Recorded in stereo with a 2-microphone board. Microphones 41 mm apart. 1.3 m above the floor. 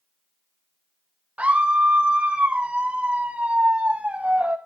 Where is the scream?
35° right (ahead or behind), 0.7 m.